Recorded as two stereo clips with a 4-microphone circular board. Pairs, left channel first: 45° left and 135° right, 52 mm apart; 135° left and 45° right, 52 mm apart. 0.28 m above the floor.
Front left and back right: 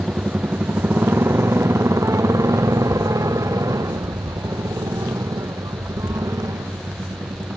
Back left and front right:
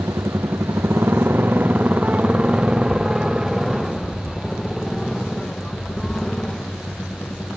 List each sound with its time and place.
0.0 s a motorcycle: 70° right; by 7.6 s 150° right